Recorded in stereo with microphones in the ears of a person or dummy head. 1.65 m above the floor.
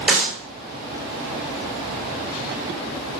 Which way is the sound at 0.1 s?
Centre (ahead or behind).